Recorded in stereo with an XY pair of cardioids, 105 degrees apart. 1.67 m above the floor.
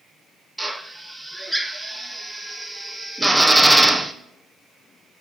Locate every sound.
0.6 s a drill: 5° right, 1.0 m